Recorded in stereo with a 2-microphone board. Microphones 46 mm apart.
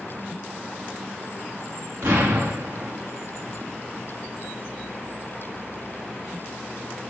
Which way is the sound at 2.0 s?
75° right (ahead or behind).